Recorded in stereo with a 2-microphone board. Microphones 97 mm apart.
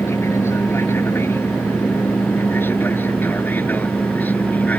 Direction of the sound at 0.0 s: 25° left (ahead or behind).